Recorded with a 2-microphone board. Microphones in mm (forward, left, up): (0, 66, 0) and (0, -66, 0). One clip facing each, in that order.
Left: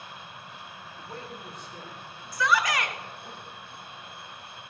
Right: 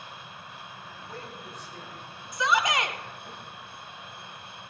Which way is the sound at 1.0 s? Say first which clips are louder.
Left 2 dB; 25° left (ahead or behind).